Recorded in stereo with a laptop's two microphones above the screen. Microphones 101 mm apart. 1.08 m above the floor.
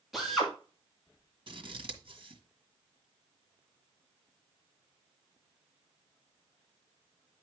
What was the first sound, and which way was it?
A drill, centre (ahead or behind).